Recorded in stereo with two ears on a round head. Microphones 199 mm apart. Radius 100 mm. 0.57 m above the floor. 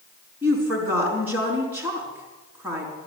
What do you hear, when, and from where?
0.4 s a woman speaking: 10° right (ahead or behind), 5 m